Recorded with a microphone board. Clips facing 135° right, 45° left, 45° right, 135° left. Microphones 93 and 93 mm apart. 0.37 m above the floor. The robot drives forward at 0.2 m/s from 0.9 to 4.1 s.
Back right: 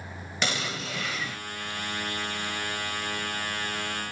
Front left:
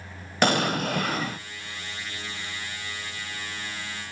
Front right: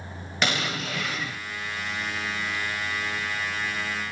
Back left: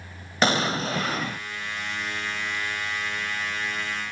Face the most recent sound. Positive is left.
turn(degrees=140)